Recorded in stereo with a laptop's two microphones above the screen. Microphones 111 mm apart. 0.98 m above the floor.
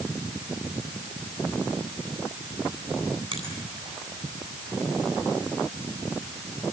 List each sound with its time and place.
3.3 s a finger snap: 60° right (ahead or behind), 9.5 m